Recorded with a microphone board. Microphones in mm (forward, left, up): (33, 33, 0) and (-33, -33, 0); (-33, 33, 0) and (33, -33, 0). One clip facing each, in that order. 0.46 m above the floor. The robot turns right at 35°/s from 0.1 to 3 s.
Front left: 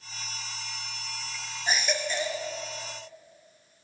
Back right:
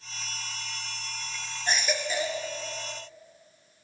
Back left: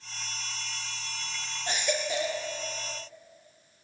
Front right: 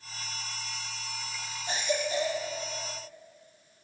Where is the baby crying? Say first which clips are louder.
Even, even; 130° left, 2 m; by 2.4 s 155° left, 2 m.